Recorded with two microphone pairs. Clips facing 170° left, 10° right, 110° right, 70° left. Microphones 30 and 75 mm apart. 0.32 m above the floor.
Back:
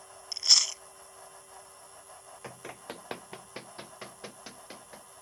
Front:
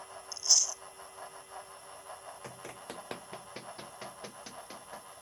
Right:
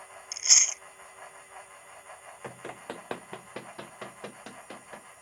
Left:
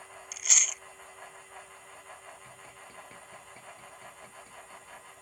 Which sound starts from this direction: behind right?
Running footsteps, at 2.4 s.